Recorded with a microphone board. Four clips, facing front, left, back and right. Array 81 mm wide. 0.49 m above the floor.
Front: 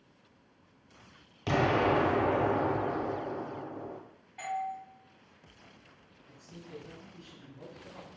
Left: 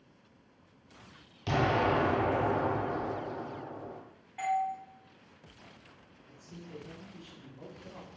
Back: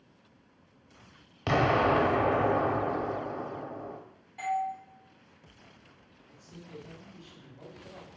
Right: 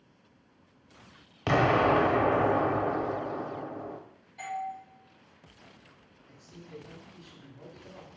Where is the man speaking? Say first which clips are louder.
Even, front 1 dB; 85° left, 1.9 m.